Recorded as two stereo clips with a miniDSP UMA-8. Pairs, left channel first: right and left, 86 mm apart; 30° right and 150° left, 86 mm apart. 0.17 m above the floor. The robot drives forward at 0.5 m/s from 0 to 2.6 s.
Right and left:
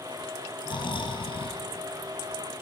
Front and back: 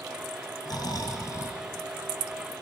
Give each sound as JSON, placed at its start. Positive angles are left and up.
{"t": 0.7, "sound": "snoring", "azimuth_deg": -70, "distance_m": 1.5}